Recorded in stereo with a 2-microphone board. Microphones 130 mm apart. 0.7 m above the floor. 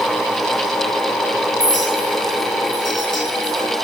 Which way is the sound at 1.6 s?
70° left (ahead or behind).